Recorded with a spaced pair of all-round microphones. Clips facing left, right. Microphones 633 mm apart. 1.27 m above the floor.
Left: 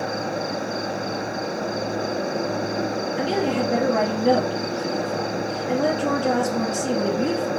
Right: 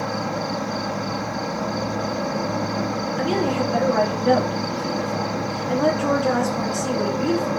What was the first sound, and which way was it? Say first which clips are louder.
An insect: even; 30° right (ahead or behind).